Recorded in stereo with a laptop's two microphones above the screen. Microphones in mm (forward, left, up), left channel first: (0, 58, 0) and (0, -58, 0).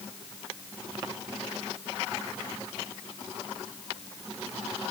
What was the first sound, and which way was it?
Only background noise.